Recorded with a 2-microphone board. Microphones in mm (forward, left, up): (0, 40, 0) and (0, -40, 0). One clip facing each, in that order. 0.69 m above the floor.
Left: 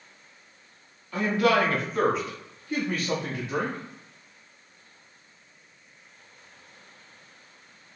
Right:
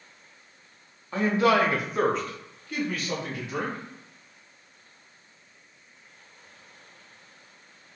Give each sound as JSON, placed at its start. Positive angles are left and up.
{"t": 1.1, "sound": "a man speaking", "side_deg": -30, "distance_m": 0.8}